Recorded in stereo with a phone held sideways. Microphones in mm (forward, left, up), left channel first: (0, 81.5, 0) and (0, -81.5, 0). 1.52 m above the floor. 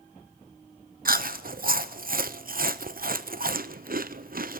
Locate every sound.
1.1 s chewing: 60° right (ahead or behind), 0.8 m